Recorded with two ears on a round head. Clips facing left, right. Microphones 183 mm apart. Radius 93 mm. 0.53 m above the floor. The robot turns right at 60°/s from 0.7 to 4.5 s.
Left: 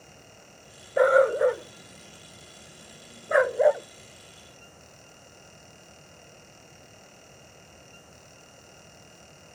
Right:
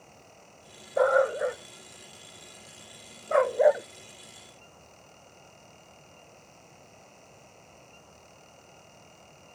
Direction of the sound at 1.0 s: 20° left (ahead or behind).